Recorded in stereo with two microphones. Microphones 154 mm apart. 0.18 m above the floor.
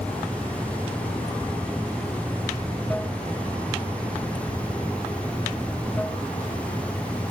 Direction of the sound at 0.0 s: 10° left (ahead or behind).